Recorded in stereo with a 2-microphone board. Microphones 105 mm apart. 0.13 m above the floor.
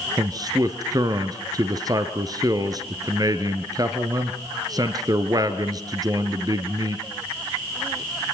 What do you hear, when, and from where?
0.2 s a man speaking: 35° right (ahead or behind), 1.9 m